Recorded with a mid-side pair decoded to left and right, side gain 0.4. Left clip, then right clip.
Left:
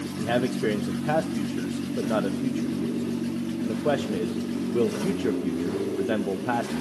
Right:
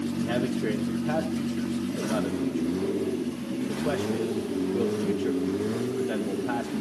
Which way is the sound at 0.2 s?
45° left.